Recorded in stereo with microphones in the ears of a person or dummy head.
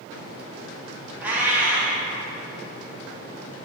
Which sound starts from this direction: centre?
A cat meowing, at 1.2 s.